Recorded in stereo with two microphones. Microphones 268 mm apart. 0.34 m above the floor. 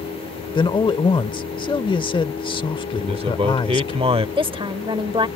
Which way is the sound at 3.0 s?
20° right (ahead or behind).